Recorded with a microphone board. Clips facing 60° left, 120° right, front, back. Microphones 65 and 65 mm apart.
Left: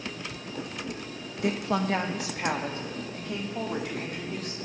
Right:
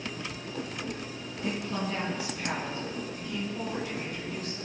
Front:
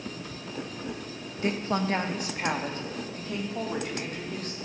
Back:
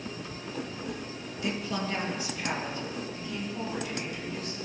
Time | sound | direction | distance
1.4 | a woman speaking | 50° left | 1.1 m